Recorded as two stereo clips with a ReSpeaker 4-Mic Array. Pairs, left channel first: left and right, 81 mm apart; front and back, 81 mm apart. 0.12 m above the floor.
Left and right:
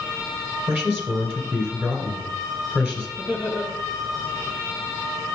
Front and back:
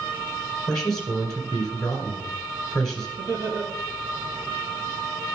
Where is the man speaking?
75° right, 1.7 m.